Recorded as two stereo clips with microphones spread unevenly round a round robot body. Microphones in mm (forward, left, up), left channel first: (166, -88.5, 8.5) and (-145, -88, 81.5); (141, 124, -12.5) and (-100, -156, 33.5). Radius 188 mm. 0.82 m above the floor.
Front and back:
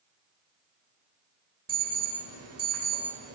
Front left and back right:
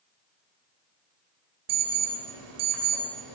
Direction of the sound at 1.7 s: 135° right.